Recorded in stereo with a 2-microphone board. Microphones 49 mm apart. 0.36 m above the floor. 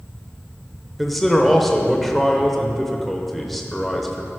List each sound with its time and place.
1.0 s a man speaking: centre (ahead or behind), 0.9 m